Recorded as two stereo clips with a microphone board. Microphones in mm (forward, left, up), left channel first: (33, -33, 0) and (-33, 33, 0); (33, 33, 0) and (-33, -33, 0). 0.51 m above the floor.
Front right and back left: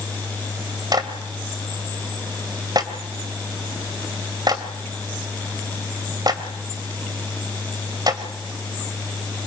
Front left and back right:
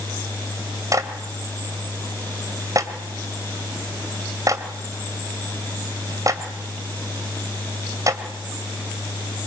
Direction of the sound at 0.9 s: 175° left.